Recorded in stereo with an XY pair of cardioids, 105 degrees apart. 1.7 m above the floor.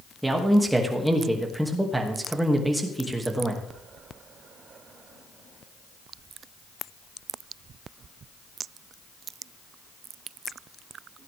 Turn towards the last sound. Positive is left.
turn(degrees=-10)